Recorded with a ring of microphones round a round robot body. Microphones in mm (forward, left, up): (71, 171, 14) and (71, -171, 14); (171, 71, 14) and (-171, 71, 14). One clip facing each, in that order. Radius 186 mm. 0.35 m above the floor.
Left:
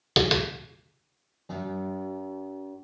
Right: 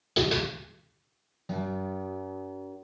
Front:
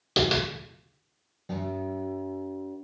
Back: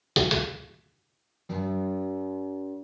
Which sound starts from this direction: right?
A guitar, at 1.5 s.